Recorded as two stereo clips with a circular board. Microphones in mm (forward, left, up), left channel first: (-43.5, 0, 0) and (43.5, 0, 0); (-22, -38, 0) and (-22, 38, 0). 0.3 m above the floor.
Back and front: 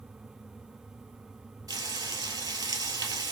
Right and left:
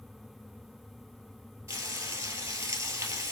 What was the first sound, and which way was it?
Frying, 45° left.